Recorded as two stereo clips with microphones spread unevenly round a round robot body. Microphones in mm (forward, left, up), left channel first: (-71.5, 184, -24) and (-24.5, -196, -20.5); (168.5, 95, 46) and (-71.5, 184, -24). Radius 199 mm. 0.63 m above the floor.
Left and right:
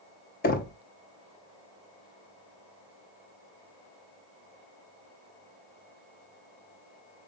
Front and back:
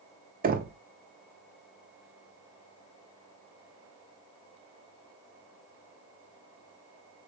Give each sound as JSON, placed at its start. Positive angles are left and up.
{"t": 0.4, "sound": "knocking", "azimuth_deg": 155, "distance_m": 0.7}